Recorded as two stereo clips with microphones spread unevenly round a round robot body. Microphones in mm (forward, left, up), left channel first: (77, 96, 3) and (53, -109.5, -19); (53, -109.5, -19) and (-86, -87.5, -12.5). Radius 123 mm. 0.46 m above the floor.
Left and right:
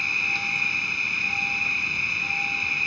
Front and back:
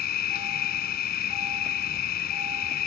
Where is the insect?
5° right.